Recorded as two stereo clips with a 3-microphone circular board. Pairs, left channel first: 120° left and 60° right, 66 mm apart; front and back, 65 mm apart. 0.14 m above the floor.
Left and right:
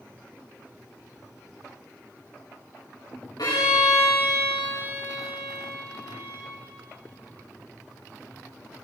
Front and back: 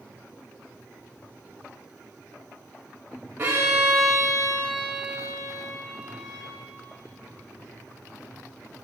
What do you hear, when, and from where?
3.4 s a violin: 120° left, 4 m